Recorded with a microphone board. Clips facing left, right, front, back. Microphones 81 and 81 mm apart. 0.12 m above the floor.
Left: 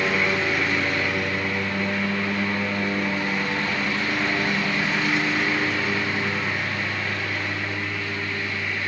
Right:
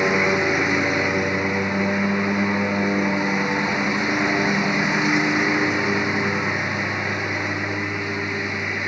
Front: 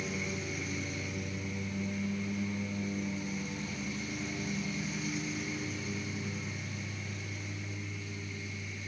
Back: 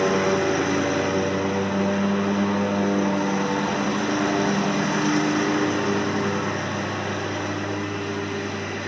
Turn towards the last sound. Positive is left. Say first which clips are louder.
# right 4 dB, back 18 dB
turn(degrees=-160)